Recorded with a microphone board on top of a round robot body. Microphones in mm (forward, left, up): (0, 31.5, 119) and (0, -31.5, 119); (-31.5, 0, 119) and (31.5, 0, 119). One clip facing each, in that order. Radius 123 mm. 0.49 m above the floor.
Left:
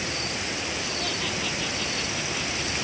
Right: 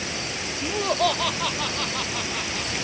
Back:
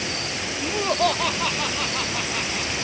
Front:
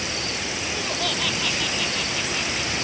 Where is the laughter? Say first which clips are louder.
Right 8 dB, back 9 dB; 125° right; by 2.8 s 130° right.